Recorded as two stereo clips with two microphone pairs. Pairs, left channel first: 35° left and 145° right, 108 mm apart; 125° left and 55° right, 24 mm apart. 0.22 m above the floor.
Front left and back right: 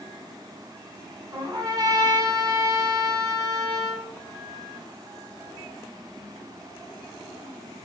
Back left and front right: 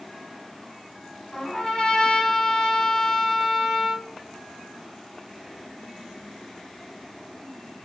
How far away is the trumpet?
About 1.0 m.